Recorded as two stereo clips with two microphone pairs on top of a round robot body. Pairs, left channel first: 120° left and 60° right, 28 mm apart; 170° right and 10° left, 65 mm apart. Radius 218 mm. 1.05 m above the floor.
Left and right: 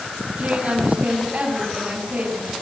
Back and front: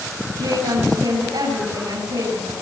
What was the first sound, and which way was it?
A woman speaking, 5° right.